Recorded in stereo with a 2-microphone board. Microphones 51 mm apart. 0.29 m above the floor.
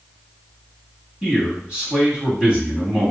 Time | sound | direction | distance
1.2 | a man speaking | 20° right (ahead or behind) | 1.7 m